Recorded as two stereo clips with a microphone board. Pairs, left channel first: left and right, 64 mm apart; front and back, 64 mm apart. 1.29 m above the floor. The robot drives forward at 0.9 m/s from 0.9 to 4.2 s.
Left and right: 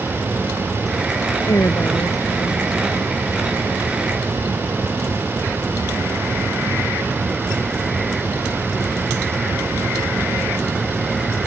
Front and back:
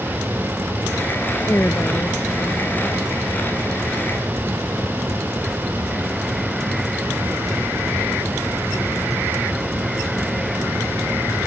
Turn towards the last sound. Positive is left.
turn(degrees=60)